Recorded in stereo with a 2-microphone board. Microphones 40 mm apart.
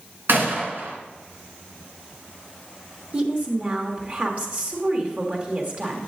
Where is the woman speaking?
45° right (ahead or behind), 1.8 m.